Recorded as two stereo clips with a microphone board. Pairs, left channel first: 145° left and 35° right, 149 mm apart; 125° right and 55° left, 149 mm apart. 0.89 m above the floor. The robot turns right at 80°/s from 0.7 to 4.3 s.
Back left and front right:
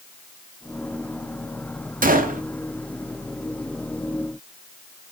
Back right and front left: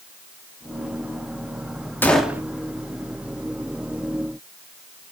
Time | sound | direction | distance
2.0 | a gunshot | 50° right | 0.5 m